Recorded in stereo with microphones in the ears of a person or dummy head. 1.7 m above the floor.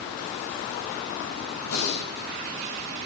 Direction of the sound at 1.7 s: 65° left (ahead or behind).